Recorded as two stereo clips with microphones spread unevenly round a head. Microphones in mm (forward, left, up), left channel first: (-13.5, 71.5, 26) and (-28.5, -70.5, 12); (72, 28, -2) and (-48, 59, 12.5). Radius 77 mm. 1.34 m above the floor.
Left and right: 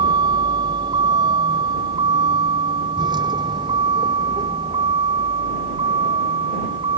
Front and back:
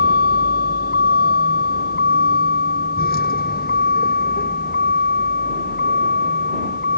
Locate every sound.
0.0 s a vehicle: 30° right